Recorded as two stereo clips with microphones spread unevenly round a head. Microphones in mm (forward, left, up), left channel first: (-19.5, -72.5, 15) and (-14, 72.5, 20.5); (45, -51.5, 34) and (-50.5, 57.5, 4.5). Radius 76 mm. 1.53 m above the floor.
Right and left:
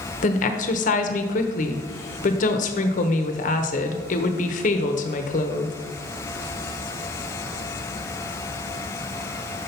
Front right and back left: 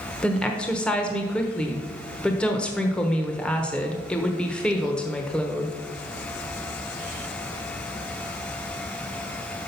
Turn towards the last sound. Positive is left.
turn(degrees=-125)